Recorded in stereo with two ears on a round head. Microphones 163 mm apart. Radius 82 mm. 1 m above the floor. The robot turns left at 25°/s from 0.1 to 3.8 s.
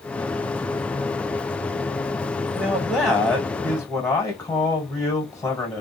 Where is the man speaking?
155° right, 0.9 m; by 5.8 s 175° left, 0.9 m.